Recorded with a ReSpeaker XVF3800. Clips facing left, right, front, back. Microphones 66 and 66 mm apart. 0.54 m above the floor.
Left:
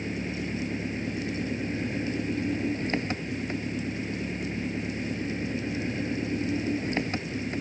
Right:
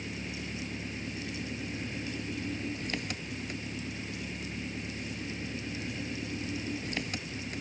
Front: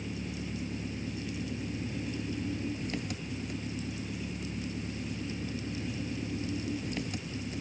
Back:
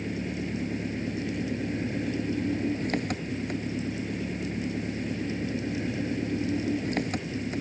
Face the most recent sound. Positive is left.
turn(degrees=150)